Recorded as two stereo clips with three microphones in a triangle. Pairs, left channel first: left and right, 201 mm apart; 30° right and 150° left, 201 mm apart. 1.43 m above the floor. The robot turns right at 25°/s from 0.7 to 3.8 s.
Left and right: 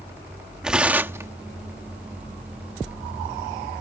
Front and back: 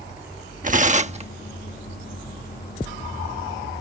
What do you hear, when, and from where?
0.6 s tearing paper: 175° right; by 1.3 s 160° right